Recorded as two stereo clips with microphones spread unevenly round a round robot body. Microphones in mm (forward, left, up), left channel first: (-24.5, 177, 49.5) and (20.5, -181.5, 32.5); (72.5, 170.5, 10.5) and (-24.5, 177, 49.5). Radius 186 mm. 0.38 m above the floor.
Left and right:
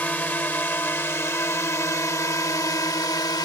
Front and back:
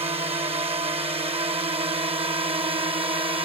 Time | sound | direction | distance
0.0 | a drone | straight behind | ?